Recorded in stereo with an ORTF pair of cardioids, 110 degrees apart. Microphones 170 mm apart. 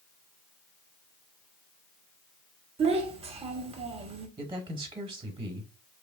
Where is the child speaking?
35° right, 0.9 m.